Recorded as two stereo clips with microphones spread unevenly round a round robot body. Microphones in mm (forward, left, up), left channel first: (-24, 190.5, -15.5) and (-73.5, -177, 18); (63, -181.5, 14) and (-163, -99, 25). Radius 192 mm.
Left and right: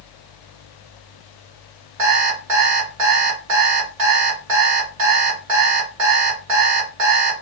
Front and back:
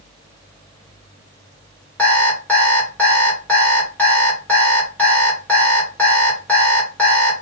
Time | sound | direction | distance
2.0 | an alarm clock | 105° right | 1.9 m